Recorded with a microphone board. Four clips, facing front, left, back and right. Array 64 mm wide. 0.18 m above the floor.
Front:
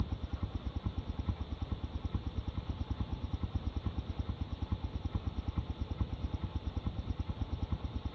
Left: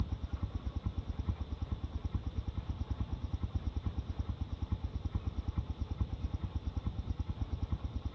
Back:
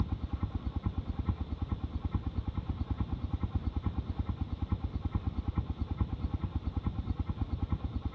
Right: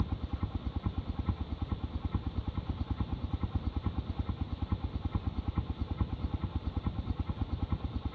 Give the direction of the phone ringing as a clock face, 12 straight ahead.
I don't hear a phone ringing.